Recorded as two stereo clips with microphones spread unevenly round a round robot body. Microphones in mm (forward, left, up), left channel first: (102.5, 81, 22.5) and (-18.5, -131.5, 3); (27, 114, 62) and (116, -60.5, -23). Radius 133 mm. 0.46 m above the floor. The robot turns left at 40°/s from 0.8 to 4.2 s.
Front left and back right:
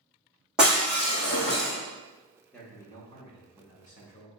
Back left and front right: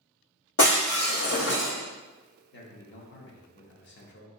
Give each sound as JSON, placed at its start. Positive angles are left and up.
{"t": 0.6, "sound": "breaking glass", "azimuth_deg": 150, "distance_m": 1.9}
{"t": 2.5, "sound": "a man speaking", "azimuth_deg": 150, "distance_m": 0.8}